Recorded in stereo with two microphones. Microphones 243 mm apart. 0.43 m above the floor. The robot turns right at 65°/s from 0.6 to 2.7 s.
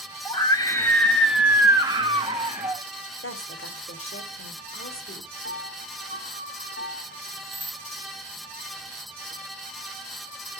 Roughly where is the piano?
Left.